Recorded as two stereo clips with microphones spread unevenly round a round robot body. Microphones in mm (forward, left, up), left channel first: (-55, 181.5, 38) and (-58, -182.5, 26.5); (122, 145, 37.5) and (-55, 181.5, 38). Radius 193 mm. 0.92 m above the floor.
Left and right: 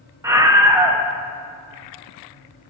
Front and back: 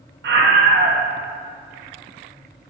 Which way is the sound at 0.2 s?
170° right.